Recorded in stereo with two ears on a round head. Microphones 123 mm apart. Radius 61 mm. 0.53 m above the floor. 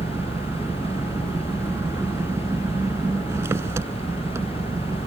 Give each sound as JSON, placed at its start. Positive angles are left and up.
{"t": 0.0, "sound": "an engine running", "side_deg": -20}